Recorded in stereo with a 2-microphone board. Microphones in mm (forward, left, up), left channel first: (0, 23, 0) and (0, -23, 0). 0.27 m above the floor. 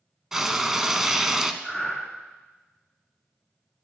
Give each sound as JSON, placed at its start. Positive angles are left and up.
{"t": 0.3, "sound": "frying", "side_deg": -5, "distance_m": 0.6}
{"t": 1.6, "sound": "breathing", "side_deg": -5, "distance_m": 3.0}